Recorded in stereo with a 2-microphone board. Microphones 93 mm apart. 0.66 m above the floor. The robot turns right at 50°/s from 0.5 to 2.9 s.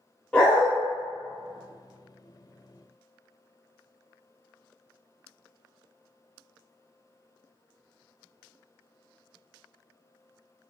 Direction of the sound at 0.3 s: 15° left (ahead or behind).